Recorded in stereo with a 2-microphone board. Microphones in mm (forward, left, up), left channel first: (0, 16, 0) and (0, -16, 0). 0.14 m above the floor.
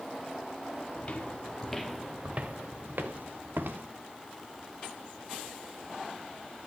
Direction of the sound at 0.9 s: 40° left (ahead or behind).